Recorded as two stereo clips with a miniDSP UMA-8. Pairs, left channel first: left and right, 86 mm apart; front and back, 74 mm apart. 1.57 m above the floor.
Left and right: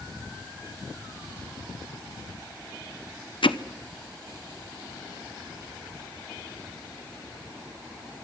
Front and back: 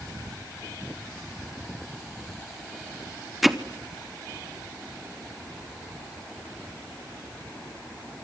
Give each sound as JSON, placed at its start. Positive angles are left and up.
{"t": 3.4, "sound": "hammering", "azimuth_deg": 95, "distance_m": 1.1}